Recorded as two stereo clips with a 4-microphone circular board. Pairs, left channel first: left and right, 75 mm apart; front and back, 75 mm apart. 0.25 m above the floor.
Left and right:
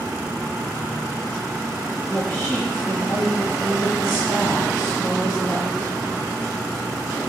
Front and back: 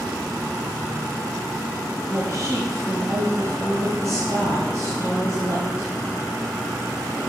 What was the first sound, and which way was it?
A woman speaking, 175° right.